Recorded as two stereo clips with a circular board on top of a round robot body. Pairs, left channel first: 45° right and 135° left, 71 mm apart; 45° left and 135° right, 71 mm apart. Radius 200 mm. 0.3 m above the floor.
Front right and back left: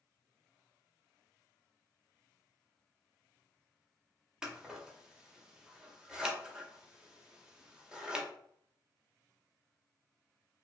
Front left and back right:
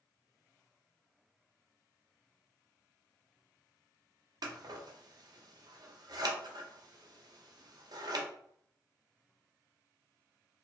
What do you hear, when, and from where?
4.4 s scissors: 145° right, 0.8 m